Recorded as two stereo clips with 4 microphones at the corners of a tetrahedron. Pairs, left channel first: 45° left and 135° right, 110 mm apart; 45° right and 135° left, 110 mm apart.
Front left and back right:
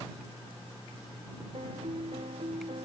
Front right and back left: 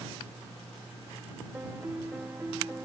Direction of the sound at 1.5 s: 150° right.